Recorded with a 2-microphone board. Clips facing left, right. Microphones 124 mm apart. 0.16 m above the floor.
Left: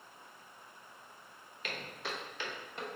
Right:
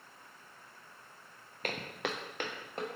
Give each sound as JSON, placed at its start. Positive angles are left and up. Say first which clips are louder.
{"t": 1.6, "sound": "footsteps", "louder": "right 5 dB", "side_deg": -50, "distance_m": 0.8}